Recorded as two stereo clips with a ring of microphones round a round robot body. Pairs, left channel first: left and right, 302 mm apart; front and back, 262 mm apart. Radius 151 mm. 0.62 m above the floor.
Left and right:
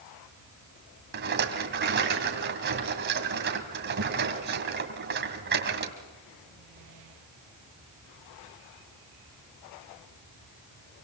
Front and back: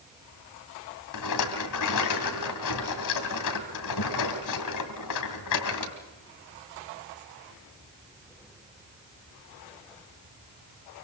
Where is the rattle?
35° right, 2 m.